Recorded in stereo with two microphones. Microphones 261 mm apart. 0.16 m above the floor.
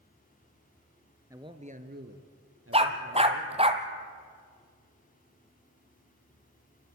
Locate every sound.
1.3 s a man speaking: 10° right (ahead or behind), 1.9 m; by 3.7 s 65° right (ahead or behind), 4.5 m
2.7 s a dog barking: 20° right (ahead or behind), 1.4 m